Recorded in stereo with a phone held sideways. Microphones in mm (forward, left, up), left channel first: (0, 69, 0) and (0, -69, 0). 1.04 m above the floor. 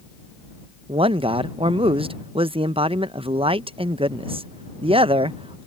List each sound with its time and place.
0.9 s a man speaking: 40° right (ahead or behind)